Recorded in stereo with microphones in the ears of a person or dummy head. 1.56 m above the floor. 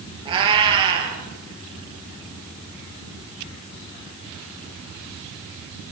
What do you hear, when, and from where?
0.2 s a cat meowing: 30° right (ahead or behind), 6 m